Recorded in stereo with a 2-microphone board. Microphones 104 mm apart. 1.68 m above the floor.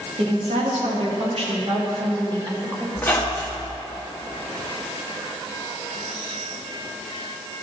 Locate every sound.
0.2 s a woman speaking: 80° right, 2.5 m; by 2.9 s 25° right (ahead or behind), 1.9 m
3.0 s a squeak: 15° left (ahead or behind), 1.3 m